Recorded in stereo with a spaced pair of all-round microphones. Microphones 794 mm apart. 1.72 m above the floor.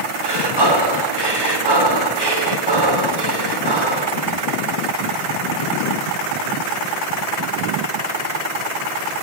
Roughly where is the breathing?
Right.